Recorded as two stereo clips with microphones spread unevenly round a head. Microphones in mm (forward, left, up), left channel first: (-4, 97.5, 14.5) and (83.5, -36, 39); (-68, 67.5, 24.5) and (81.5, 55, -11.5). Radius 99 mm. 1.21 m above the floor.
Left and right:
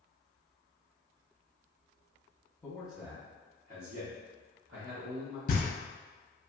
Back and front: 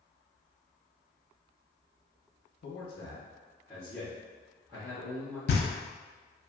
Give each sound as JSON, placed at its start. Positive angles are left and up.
{"t": 2.6, "sound": "a man speaking", "azimuth_deg": -160, "distance_m": 0.8}
{"t": 5.5, "sound": "knocking", "azimuth_deg": 165, "distance_m": 0.6}